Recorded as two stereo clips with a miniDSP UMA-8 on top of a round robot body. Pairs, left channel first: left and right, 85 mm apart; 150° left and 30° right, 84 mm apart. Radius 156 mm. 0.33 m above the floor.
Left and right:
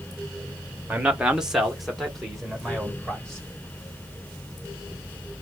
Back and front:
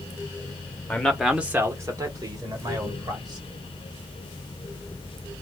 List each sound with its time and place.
0.9 s a man speaking: 155° right, 1.2 m; by 3.5 s 10° left, 3 m